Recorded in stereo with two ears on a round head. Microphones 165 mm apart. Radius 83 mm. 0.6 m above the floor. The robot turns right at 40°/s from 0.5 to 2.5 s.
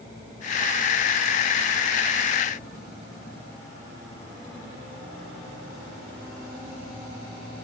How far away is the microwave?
I don't hear a microwave.